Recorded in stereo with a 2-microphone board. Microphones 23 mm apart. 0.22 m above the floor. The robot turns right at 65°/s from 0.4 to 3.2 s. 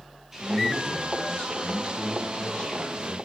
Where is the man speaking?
5° right, 3 m; by 3.2 s 175° left, 3 m.